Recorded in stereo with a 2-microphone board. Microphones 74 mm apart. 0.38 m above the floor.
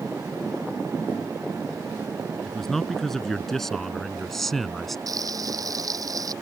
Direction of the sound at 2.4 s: 5° left (ahead or behind).